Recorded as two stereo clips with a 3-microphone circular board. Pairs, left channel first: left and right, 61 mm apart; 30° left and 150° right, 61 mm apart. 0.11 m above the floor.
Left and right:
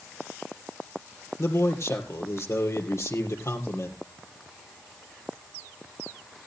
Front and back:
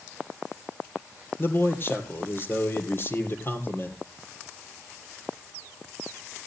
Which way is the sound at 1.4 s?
70° left.